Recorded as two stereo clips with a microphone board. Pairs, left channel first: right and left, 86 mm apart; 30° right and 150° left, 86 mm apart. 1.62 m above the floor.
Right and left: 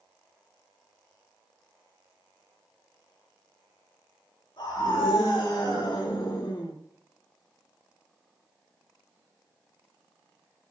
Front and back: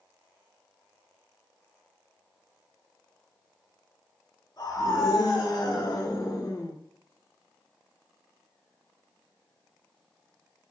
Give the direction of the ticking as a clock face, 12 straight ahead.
No ticking in this recording.